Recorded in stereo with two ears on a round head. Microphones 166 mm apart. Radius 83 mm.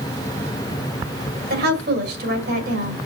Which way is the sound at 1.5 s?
60° right (ahead or behind).